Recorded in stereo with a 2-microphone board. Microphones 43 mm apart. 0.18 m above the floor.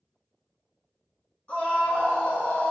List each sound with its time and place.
1.5 s a scream: 25° left (ahead or behind), 1.7 m